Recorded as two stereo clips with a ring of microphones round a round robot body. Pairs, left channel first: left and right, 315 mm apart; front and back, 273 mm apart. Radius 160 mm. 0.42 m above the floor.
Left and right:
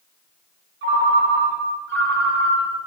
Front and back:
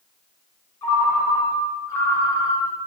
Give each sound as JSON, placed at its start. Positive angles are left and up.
{"t": 0.8, "sound": "a ringtone", "azimuth_deg": -70, "distance_m": 0.6}